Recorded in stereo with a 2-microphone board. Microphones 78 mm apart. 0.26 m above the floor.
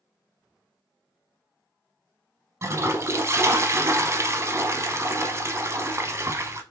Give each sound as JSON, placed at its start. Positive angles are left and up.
{"t": 2.6, "sound": "a toilet flushing", "side_deg": -35, "distance_m": 0.6}